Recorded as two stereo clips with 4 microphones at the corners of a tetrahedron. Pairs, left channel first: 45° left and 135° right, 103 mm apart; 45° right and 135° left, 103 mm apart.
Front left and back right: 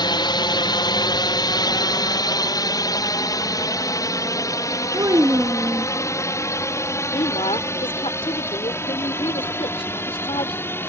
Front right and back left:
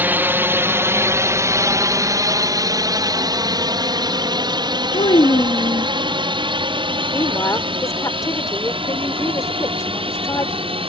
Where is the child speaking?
75° right.